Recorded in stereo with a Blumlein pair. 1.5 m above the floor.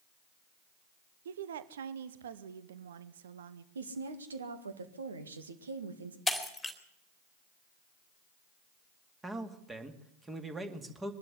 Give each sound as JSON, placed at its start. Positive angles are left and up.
{"t": 1.2, "sound": "a woman speaking", "azimuth_deg": -60, "distance_m": 1.0}
{"t": 3.8, "sound": "a woman speaking", "azimuth_deg": -70, "distance_m": 2.0}
{"t": 6.3, "sound": "breaking glass", "azimuth_deg": 5, "distance_m": 2.5}
{"t": 9.2, "sound": "a man speaking", "azimuth_deg": -10, "distance_m": 2.0}